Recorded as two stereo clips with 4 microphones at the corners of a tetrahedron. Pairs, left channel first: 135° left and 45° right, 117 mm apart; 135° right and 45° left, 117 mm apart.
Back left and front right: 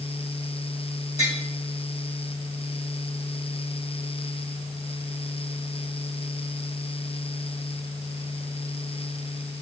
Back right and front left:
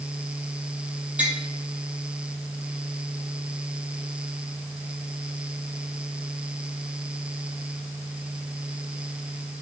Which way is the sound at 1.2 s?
125° left.